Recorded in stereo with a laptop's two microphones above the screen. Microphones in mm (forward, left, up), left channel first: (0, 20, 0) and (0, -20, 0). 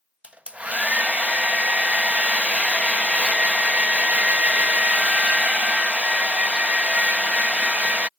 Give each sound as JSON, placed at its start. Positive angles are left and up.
{"t": 0.2, "sound": "a hair dryer", "side_deg": -30}